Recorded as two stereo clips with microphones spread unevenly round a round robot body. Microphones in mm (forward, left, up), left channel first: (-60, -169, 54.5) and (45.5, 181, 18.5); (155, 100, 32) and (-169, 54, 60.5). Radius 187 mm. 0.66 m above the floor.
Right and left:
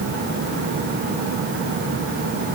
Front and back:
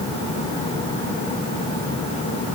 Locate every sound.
Only background noise.